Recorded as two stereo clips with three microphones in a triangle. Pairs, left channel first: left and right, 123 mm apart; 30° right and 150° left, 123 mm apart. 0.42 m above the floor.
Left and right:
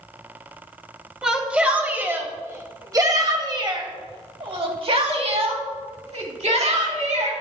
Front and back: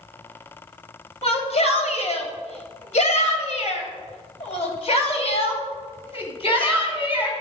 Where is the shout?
5° right, 2.5 m; by 7.3 s 75° right, 3.5 m.